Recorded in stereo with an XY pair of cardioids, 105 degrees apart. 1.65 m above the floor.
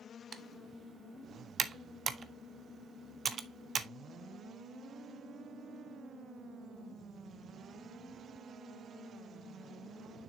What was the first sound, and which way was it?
Typing on a keyboard, 45° right.